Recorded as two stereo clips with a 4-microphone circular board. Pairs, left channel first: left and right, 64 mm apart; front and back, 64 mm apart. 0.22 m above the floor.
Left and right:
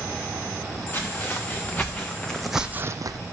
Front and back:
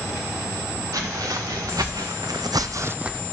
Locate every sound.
0.9 s footsteps: 150° left, 2.5 m; by 3.2 s 95° right, 0.7 m